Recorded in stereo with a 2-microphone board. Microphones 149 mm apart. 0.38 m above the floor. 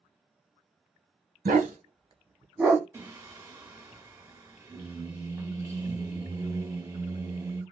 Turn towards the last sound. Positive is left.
turn(degrees=-20)  # may be behind; listen again after turning